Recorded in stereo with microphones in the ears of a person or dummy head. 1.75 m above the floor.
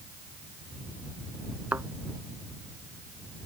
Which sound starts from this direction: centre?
A thud, at 1.7 s.